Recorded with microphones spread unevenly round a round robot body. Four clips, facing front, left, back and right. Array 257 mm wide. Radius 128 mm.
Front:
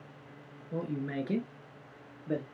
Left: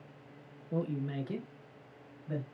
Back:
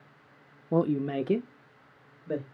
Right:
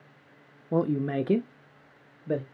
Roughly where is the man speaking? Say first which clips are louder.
Right 9 dB, back 9 dB; behind right.